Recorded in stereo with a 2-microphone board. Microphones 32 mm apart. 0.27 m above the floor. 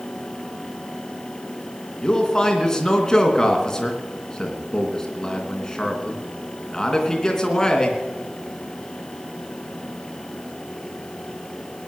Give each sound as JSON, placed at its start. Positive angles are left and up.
{"t": 2.0, "sound": "a man speaking", "side_deg": 20, "distance_m": 3.0}